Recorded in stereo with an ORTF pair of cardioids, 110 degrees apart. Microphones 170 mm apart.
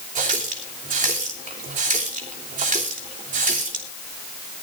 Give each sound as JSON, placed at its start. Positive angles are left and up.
{"t": 0.1, "sound": "a running tap", "azimuth_deg": -50, "distance_m": 3.0}